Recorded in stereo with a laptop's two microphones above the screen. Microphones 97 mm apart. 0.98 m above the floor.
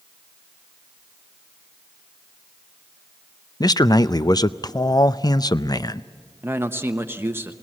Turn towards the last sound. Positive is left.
turn(degrees=-25)  # may be behind; listen again after turning